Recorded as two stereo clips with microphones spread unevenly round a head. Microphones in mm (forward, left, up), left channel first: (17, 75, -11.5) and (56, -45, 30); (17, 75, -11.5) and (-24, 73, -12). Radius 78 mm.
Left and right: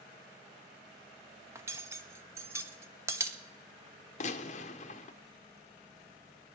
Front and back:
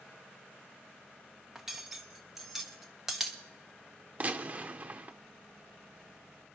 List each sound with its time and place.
1.6 s cutlery clinking: 100° right, 0.7 m
4.2 s a gunshot: 125° left, 1.0 m